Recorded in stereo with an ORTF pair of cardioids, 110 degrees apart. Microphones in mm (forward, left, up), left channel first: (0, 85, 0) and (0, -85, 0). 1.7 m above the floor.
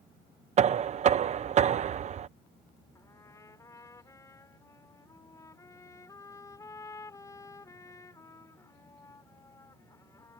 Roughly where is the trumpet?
Ahead.